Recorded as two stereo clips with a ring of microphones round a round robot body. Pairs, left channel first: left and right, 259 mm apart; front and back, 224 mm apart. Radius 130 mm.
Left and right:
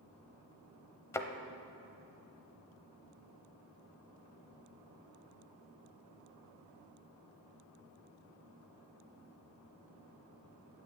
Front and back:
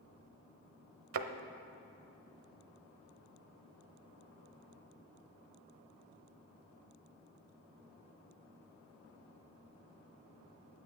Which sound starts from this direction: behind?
A thud, at 1.1 s.